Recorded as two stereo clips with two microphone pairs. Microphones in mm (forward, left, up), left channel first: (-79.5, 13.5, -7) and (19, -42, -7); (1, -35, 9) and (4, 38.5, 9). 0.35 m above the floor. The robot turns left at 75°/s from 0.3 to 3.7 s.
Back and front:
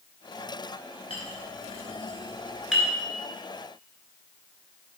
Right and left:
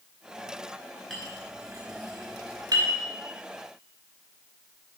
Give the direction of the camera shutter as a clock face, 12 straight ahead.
No camera shutter in this recording.